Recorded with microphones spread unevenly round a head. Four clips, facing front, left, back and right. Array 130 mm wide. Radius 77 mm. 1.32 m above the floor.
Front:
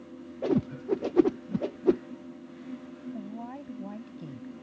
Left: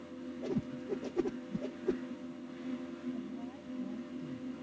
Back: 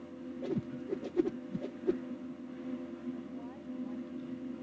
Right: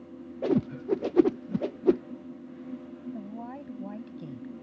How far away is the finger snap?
No finger snap in this recording.